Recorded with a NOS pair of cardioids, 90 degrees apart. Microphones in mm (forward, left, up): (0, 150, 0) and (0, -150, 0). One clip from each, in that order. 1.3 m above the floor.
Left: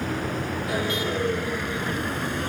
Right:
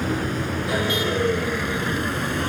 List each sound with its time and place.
0.0 s a vehicle: 30° right; by 2.5 s 25° right